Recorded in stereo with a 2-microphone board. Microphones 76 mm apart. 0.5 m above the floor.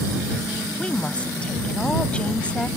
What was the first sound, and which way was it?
A woman speaking, 15° left (ahead or behind).